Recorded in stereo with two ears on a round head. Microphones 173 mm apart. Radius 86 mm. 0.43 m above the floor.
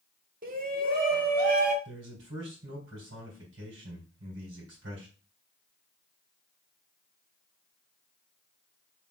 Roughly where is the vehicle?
I don't hear a vehicle.